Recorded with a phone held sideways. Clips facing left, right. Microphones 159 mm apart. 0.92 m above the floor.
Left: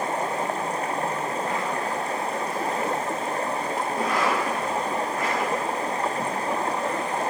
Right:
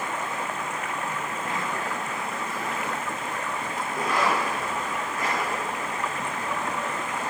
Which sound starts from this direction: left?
Running water, at 0.0 s.